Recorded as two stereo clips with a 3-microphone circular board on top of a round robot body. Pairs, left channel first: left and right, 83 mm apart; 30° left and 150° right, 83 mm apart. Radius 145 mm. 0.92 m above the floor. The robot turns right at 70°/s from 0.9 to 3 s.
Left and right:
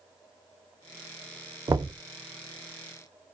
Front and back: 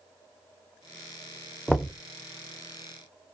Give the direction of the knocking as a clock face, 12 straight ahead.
2 o'clock.